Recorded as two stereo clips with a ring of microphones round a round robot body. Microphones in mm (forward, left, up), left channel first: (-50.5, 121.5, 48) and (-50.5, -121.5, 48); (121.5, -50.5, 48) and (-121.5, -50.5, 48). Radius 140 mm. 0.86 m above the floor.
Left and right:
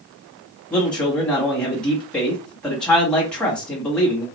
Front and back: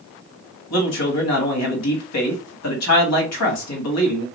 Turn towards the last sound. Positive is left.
turn(degrees=5)